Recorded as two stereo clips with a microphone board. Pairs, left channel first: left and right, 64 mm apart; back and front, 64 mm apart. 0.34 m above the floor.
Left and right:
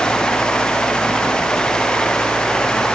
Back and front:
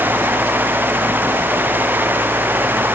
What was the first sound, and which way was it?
Only background noise.